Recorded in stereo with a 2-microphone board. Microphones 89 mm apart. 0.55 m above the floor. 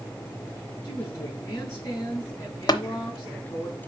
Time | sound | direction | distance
0.8 | a woman speaking | 40° left (ahead or behind) | 4 m
2.7 | tapping | 50° left (ahead or behind) | 0.6 m